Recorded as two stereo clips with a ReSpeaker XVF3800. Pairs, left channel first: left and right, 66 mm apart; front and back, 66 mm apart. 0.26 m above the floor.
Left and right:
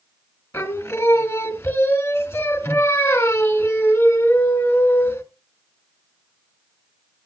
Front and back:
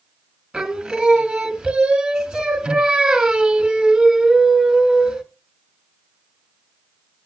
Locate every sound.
0.5 s singing: 110° left, 1.6 m